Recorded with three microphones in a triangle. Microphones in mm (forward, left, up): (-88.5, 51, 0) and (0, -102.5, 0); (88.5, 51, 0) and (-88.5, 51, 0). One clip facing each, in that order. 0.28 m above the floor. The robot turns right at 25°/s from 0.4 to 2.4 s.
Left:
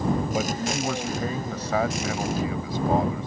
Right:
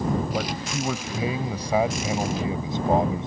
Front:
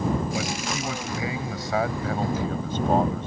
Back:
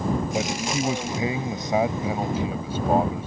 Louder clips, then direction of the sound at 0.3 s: Left 2 dB, back 3 dB; 160° right.